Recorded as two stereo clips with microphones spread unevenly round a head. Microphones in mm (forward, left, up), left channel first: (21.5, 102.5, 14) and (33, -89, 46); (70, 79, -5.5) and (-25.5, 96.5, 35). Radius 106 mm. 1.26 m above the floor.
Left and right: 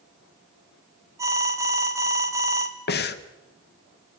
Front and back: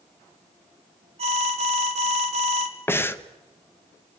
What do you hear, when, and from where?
1.2 s an alarm: 165° right, 1.6 m
2.9 s breathing: 55° left, 1.2 m